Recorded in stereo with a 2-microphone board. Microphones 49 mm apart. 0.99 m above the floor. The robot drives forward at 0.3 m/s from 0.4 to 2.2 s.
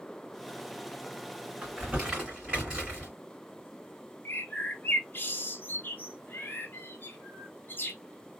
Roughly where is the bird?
Left.